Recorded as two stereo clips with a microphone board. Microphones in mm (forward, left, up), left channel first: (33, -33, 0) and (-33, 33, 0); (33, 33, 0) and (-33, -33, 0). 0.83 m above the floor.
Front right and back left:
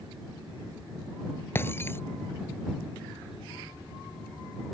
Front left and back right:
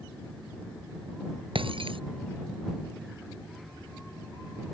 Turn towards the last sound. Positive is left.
turn(degrees=-110)